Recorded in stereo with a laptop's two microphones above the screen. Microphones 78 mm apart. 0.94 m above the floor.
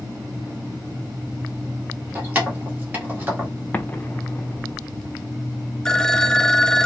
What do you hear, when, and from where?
2.1 s keys jangling: 20° right (ahead or behind), 1.1 m
3.7 s an explosion: 20° left (ahead or behind), 0.6 m
5.8 s a phone ringing: 10° left (ahead or behind), 0.5 m